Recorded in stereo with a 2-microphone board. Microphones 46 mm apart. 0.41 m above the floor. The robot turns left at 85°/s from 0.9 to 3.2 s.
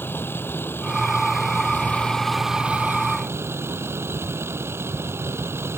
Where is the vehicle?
120° left; by 5.8 s 75° right.